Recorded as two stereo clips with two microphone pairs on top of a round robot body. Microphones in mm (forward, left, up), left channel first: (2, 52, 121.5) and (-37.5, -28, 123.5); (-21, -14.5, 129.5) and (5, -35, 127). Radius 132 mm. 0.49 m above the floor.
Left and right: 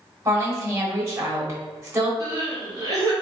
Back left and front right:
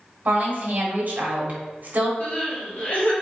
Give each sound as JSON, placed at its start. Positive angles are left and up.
{"t": 0.2, "sound": "a woman speaking", "azimuth_deg": -65, "distance_m": 1.6}
{"t": 2.2, "sound": "crying", "azimuth_deg": -170, "distance_m": 1.2}